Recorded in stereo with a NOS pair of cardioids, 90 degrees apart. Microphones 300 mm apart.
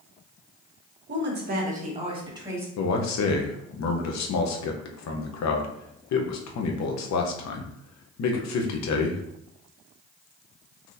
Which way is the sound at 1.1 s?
40° right.